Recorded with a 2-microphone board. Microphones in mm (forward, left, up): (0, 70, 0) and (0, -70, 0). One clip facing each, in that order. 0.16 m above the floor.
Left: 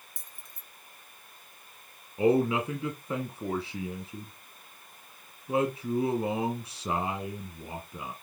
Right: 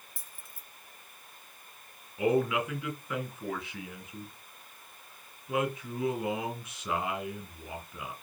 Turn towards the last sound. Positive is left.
turn(degrees=35)  # may be behind; listen again after turning